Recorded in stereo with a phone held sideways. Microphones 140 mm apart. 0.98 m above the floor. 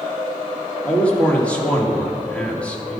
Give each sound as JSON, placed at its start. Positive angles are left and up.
{"t": 0.8, "sound": "a man speaking", "side_deg": 10, "distance_m": 2.0}